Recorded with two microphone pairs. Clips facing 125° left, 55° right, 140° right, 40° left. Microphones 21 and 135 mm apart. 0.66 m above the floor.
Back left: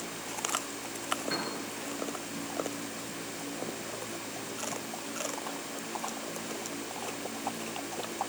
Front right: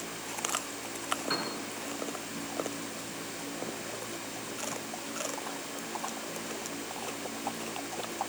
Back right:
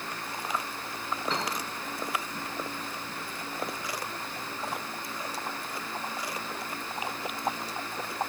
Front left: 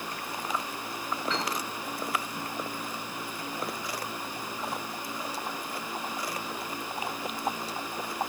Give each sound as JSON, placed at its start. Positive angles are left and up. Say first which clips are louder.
{"t": 1.3, "sound": "a piano", "louder": "front right 3 dB, even", "azimuth_deg": -85, "distance_m": 4.5}